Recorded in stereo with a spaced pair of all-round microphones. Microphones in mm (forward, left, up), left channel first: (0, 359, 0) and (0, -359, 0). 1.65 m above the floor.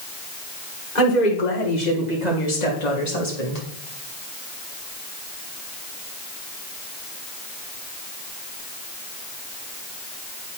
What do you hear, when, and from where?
0.9 s a woman speaking: 75° left (ahead or behind), 4.5 m; by 3.6 s 60° left (ahead or behind), 3 m